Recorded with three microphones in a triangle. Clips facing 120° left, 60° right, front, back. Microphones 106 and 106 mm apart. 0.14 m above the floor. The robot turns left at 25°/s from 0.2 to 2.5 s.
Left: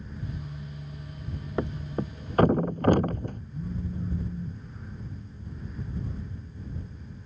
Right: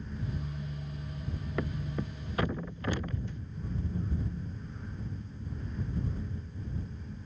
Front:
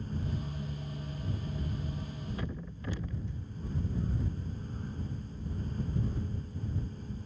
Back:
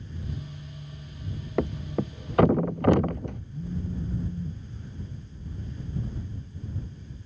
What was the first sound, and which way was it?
A thud, straight behind.